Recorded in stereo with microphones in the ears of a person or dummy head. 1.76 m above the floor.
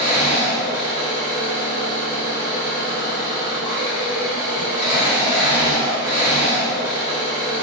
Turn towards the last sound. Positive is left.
turn(degrees=-10)  # may be behind; listen again after turning